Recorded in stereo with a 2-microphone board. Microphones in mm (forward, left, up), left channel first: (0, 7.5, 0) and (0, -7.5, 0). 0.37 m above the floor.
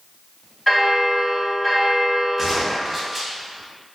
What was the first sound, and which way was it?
A bell, 20° left (ahead or behind).